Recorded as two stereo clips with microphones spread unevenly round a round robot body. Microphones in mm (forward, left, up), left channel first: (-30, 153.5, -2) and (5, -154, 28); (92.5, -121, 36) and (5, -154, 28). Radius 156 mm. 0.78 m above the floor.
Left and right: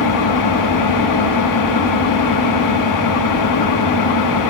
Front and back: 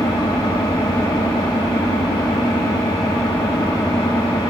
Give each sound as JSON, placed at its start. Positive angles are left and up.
{"t": 0.0, "sound": "an engine running", "azimuth_deg": 85, "distance_m": 1.0}